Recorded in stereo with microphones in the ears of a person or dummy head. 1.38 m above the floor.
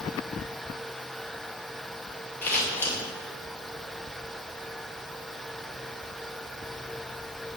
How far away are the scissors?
About 2.0 m.